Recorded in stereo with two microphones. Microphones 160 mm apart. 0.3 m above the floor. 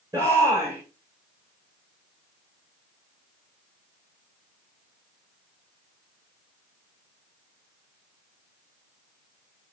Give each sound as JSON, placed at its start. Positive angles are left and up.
{"t": 0.1, "sound": "a shout", "side_deg": -20, "distance_m": 4.5}